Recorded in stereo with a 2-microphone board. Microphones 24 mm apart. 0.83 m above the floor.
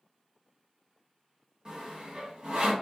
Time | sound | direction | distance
1.6 | sawing | 35° right (ahead or behind) | 0.9 m